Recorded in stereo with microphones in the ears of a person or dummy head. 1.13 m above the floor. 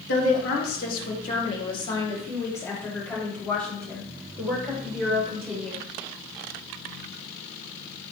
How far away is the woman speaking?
About 1.1 m.